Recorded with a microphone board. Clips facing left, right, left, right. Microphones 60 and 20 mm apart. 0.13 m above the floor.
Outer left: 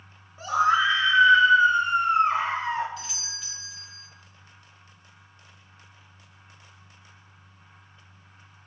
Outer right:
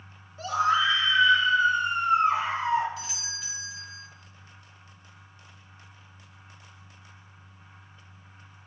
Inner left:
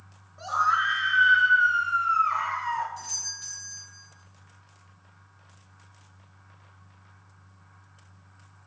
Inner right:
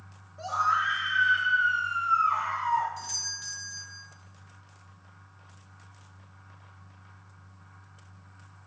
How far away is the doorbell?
About 1.7 m.